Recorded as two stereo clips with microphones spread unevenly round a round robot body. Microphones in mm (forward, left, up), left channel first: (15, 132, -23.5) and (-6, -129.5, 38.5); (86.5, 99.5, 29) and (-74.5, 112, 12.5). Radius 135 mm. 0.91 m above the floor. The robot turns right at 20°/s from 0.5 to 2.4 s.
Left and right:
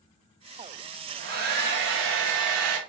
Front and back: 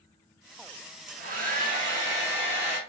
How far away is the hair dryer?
About 1.2 m.